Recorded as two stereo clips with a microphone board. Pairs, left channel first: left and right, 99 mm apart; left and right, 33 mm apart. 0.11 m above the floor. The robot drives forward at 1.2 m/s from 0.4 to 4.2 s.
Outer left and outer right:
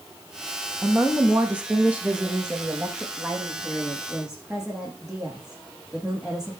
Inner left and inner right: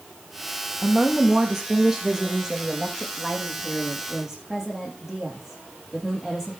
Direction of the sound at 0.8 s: 15° right (ahead or behind).